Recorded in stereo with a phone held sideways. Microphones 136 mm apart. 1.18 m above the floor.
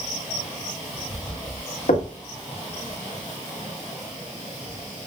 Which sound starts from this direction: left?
Knocking, at 1.9 s.